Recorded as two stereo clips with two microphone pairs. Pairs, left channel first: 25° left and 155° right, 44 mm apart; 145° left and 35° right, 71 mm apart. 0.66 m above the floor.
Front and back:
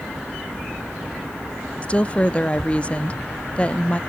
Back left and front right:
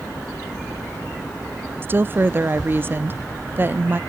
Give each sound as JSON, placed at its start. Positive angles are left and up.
{"t": 1.8, "sound": "a woman speaking", "azimuth_deg": -10, "distance_m": 0.6}